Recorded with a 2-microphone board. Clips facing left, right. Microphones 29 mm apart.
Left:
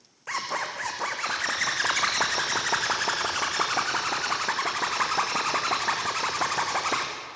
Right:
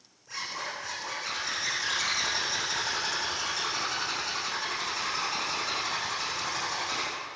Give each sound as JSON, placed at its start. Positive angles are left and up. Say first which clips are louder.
{"t": 0.3, "sound": "a zipper", "louder": "left 6 dB", "side_deg": 80, "distance_m": 4.5}